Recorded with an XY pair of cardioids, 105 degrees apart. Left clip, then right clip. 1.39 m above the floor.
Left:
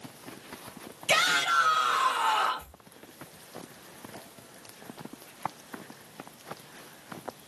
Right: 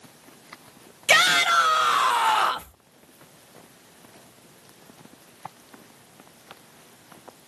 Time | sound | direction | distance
1.1 | a shout | 55° right | 0.7 m